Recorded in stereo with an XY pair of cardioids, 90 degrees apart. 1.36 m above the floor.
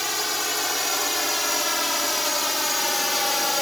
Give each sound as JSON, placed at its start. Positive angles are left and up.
{"t": 0.0, "sound": "a drone", "azimuth_deg": 5}